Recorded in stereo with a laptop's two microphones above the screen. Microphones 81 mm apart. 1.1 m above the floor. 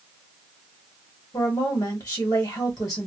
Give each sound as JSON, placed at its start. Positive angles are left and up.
{"t": 1.3, "sound": "a woman speaking", "side_deg": 40, "distance_m": 1.2}